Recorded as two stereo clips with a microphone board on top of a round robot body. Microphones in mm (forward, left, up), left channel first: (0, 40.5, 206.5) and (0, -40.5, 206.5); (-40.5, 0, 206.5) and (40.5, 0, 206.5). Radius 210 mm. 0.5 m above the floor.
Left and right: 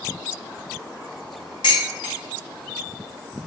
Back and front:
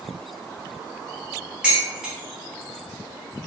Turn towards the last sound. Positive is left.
turn(degrees=80)